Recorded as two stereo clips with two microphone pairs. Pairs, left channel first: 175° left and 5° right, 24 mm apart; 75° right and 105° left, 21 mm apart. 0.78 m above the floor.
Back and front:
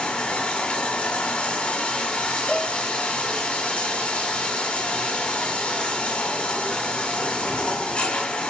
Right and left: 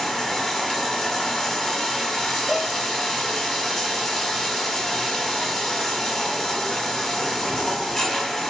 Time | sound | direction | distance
0.0 | running water | 165° right | 1.7 m
2.5 | a cowbell | 175° right | 5.5 m